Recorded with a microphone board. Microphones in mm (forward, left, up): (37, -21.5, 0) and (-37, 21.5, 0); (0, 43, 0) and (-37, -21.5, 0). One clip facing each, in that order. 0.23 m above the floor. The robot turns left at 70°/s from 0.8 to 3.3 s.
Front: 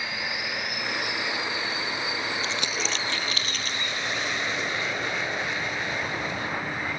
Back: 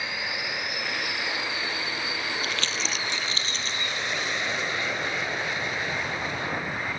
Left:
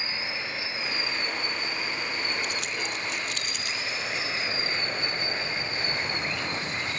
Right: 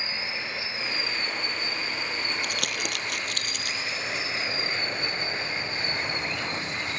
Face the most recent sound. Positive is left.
turn(degrees=-150)